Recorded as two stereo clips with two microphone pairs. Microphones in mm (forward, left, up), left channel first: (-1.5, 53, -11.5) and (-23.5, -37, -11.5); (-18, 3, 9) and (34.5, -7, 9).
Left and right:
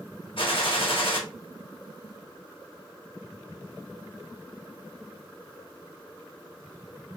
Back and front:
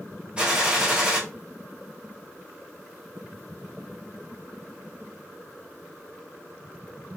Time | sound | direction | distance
0.4 | a gunshot | 60° left | 1.5 m